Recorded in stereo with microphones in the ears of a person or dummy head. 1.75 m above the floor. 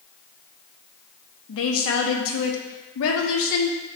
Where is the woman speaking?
75° left (ahead or behind), 0.6 m.